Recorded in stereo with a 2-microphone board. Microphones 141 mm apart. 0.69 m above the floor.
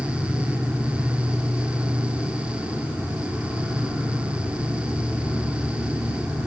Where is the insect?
10° right (ahead or behind), 1.8 m.